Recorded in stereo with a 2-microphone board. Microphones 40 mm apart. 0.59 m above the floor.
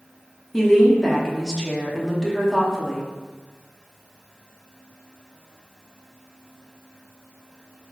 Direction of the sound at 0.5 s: 10° left (ahead or behind).